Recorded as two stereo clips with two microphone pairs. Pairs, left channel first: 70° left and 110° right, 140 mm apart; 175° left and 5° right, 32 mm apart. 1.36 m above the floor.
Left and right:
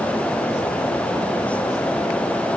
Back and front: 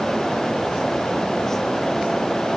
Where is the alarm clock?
I don't hear an alarm clock.